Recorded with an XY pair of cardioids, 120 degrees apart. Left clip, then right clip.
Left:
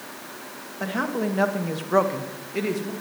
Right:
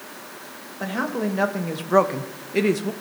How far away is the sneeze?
I don't hear a sneeze.